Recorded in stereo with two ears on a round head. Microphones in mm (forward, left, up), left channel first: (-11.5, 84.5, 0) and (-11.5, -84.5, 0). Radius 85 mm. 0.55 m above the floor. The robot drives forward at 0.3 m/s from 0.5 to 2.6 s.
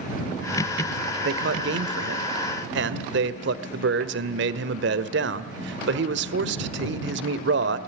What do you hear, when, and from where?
1.2 s a man speaking: 65° right (ahead or behind), 1.7 m; by 7.8 s 70° right (ahead or behind), 1.6 m